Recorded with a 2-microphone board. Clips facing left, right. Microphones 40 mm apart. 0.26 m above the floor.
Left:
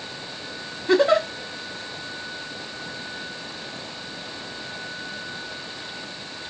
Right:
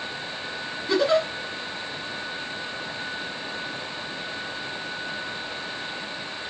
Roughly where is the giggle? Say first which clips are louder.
Left 3 dB; left.